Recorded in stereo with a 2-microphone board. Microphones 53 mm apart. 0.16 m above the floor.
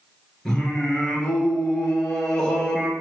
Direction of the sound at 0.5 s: 10° left (ahead or behind).